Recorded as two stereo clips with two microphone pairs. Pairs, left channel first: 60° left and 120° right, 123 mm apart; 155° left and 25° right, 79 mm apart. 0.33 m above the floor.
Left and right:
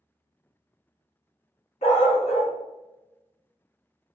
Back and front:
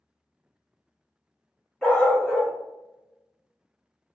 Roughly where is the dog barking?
Left.